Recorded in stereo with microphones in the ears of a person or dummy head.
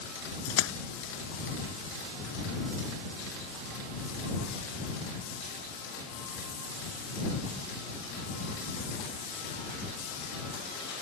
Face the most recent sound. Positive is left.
turn(degrees=75)  # may be behind; listen again after turning